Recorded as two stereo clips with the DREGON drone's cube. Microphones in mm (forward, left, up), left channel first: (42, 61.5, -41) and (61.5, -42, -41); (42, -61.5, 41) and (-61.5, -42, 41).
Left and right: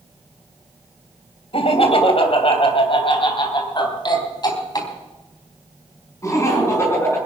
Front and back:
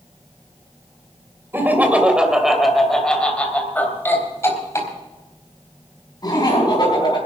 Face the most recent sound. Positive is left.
turn(degrees=35)